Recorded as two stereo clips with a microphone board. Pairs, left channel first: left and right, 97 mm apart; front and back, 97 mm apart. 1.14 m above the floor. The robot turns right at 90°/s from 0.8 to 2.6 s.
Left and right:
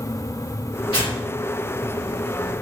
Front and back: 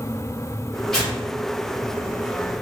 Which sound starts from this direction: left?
Tearing paper, at 0.9 s.